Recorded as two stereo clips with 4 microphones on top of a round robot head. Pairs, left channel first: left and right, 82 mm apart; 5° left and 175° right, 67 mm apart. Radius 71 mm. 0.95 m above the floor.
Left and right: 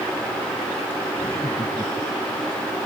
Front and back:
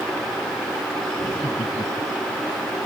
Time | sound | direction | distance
1.2 | laughter | 40° left | ?